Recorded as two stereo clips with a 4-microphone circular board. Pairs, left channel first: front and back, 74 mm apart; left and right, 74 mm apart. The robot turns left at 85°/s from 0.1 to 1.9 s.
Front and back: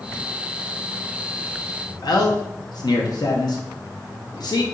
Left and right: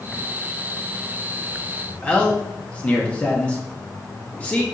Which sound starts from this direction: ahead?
A man speaking, at 2.0 s.